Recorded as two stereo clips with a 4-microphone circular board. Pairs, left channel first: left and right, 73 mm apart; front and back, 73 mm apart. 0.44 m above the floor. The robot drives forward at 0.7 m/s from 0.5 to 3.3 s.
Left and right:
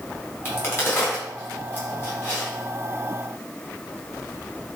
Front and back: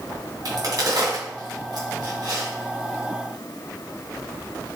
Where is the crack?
145° left, 3.5 m; by 2.5 s 155° left, 4.5 m.